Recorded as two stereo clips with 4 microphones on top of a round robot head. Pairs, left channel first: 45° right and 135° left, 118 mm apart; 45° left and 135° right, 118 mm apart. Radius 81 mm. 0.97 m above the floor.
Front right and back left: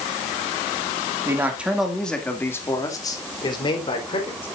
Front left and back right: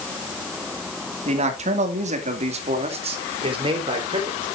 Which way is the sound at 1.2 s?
160° right.